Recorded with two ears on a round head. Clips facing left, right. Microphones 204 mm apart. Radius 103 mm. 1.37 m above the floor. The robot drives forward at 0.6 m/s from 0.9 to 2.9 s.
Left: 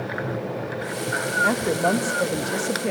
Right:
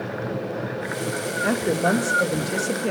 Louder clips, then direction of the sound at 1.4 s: Right 1 dB; 10° right (ahead or behind).